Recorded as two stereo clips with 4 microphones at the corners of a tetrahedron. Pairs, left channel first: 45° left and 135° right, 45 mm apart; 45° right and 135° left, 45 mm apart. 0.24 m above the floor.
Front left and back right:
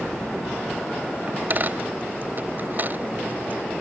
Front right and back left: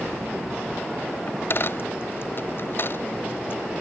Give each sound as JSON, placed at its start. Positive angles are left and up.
{"t": 1.3, "sound": "a dropped coin", "azimuth_deg": -85}